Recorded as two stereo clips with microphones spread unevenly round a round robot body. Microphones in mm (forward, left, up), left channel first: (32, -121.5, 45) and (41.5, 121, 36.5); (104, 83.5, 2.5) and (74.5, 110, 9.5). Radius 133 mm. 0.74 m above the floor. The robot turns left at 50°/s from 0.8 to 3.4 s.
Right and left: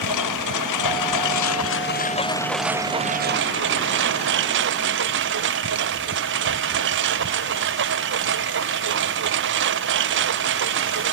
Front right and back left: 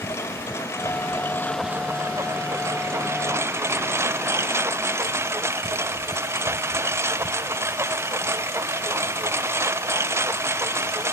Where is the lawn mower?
90° right; by 11.1 s 140° left.